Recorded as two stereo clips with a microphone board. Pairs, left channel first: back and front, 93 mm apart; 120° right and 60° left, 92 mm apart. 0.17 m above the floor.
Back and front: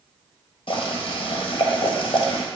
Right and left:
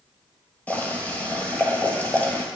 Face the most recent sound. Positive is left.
turn(degrees=165)